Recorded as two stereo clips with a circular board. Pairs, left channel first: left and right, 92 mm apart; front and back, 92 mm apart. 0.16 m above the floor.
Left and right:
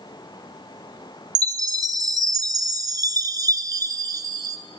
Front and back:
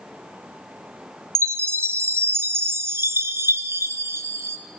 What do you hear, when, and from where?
1.4 s a chime: 125° right, 0.5 m